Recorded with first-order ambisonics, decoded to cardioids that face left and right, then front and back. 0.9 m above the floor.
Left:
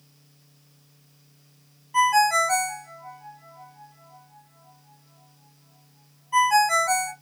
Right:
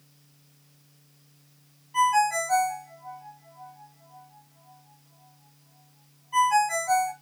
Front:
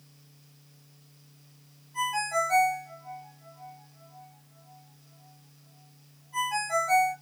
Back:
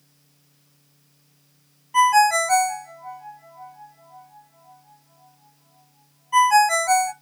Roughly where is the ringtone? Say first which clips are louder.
Left 3 dB, back 12 dB; behind left.